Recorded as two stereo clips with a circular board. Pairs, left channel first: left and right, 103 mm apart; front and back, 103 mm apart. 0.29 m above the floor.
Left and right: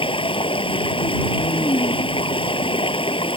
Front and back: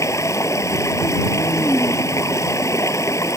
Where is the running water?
60° left.